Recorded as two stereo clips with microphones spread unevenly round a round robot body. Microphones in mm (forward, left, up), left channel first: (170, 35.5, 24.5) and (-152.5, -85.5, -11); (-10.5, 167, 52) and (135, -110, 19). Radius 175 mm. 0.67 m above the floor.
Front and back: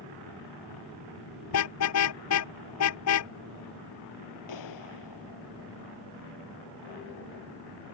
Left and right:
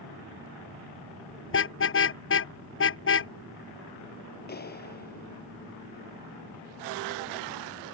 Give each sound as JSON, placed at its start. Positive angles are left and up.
{"t": 1.5, "sound": "a car horn", "azimuth_deg": 70}
{"t": 4.5, "sound": "a clap", "azimuth_deg": 60}